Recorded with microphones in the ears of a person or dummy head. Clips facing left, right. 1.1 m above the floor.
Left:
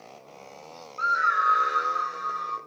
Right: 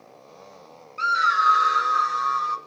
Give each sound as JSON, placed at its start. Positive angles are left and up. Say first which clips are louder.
{"t": 1.0, "sound": "a scream", "louder": "right 3 dB", "side_deg": -25, "distance_m": 0.7}